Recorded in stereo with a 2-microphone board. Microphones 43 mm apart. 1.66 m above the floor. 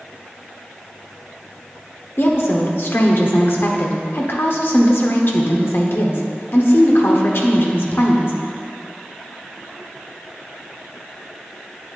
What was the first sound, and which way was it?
A woman speaking, 60° left (ahead or behind).